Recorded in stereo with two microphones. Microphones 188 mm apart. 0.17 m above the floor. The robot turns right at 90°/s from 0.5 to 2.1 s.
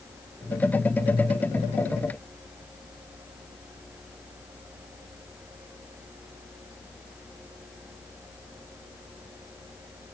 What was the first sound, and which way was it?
Only background noise.